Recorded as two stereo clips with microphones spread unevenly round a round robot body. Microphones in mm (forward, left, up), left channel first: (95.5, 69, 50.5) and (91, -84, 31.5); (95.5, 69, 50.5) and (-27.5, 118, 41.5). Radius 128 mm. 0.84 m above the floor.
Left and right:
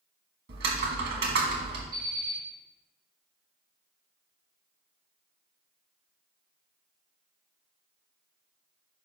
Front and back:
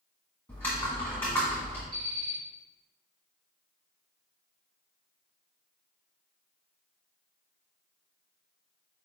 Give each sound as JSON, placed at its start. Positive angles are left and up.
{"t": 0.5, "sound": "typing on a keyboard", "azimuth_deg": -100, "distance_m": 1.5}
{"t": 1.9, "sound": "an alarm clock", "azimuth_deg": -150, "distance_m": 3.5}